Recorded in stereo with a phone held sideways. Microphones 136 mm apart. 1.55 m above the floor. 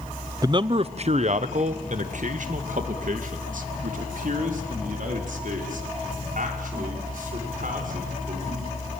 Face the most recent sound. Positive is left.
turn(degrees=-70)  # may be behind; listen again after turning